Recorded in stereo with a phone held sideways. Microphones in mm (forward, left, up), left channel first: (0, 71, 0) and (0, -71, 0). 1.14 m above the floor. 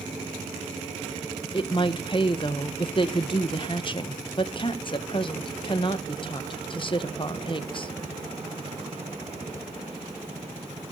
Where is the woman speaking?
35° left (ahead or behind), 1.1 m.